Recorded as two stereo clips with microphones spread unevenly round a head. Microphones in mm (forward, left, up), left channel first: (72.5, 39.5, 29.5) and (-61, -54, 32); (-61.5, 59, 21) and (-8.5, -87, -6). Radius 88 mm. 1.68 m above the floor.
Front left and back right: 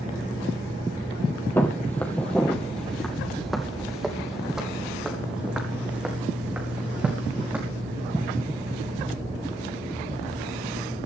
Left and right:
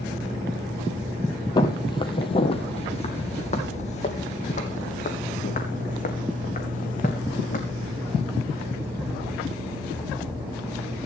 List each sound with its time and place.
1.6 s footsteps: 105° left, 2.0 m; by 7.6 s 135° left, 4.5 m